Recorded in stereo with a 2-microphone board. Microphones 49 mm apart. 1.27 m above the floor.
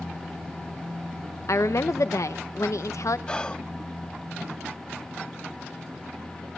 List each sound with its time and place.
1.5 s a woman speaking: 80° left, 0.8 m
3.3 s whispering: 20° left (ahead or behind), 0.9 m